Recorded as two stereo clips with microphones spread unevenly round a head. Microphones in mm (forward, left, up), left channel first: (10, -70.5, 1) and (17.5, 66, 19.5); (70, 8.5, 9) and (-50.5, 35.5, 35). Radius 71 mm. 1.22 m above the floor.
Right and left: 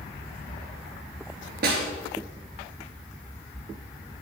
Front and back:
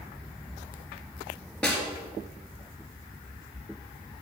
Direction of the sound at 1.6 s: 65° left.